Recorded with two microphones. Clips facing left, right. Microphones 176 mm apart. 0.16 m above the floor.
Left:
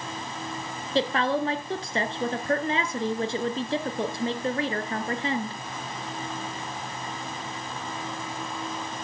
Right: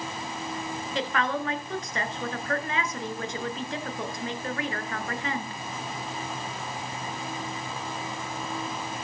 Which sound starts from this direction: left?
A woman speaking, at 0.9 s.